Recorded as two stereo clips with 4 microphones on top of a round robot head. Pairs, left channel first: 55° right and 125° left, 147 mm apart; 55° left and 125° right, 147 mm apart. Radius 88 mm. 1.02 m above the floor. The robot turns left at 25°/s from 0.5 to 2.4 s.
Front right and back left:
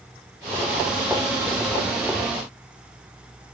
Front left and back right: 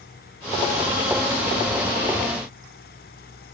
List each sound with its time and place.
Only background noise.